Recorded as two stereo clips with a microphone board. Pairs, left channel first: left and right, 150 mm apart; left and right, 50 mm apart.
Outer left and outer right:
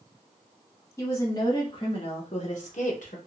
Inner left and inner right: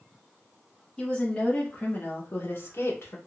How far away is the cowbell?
No cowbell in this recording.